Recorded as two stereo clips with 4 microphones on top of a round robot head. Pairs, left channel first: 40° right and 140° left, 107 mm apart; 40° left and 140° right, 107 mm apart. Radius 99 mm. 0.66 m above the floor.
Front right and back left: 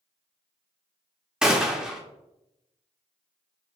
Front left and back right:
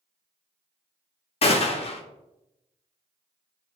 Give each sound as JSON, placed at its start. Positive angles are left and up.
{"t": 1.4, "sound": "a gunshot", "azimuth_deg": 60, "distance_m": 0.7}